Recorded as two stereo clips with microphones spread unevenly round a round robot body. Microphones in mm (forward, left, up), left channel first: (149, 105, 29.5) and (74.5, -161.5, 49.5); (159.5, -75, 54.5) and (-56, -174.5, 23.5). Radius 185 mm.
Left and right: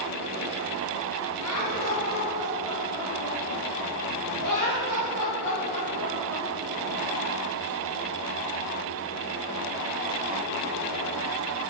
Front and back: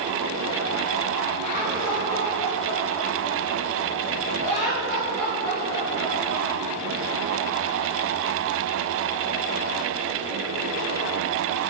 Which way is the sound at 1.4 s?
65° left.